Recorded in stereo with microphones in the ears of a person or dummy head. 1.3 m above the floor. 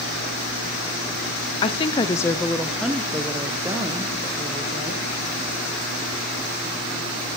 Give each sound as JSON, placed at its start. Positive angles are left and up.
{"t": 1.6, "sound": "a woman speaking", "side_deg": 25, "distance_m": 0.5}